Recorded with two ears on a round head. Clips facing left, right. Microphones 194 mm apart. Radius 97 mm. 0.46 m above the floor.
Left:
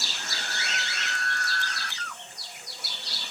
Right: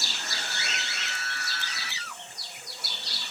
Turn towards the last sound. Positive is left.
turn(degrees=-5)  # may be behind; listen again after turning